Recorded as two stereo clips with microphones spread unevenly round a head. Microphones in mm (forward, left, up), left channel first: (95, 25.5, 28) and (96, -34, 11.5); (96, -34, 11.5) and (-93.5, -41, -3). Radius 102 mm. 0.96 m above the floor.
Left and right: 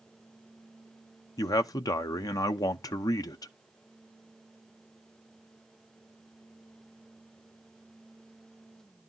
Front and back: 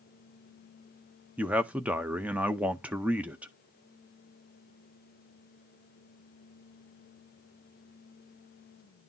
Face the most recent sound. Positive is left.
turn(degrees=105)